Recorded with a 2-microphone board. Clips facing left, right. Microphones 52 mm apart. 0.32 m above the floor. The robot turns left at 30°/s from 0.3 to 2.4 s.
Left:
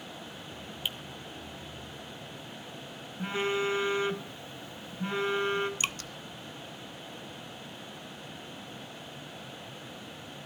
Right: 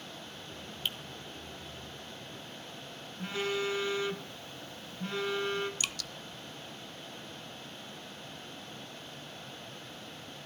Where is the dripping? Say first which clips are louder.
Left 4 dB; 35° left (ahead or behind), 0.5 m.